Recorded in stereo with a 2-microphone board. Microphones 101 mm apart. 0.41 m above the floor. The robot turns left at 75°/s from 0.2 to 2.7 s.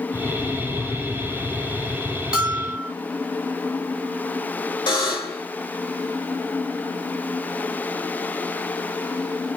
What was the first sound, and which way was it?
A bell, 10° right (ahead or behind).